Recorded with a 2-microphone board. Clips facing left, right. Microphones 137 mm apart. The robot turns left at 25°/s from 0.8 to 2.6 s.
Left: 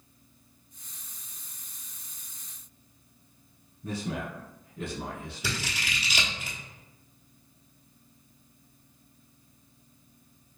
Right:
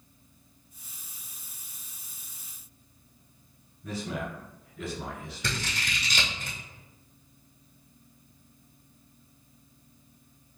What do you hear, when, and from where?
3.8 s a man speaking: 30° left (ahead or behind), 1.3 m
5.4 s scissors: 5° left (ahead or behind), 0.9 m